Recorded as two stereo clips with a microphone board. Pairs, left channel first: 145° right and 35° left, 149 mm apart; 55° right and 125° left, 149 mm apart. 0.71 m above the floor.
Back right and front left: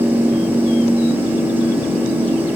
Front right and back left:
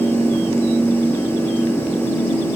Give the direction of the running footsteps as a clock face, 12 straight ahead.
No running footsteps in this recording.